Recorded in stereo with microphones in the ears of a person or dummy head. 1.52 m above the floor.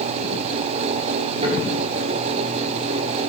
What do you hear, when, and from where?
1.4 s a thud: 40° right (ahead or behind), 9.5 m